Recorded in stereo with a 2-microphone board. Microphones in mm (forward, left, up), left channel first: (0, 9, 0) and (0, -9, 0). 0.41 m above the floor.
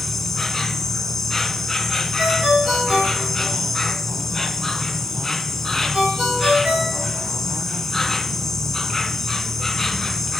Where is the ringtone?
70° right (ahead or behind), 6 m.